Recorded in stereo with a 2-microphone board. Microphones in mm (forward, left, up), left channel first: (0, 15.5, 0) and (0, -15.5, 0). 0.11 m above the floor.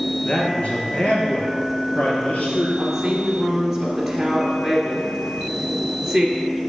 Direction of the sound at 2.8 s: 5° right (ahead or behind).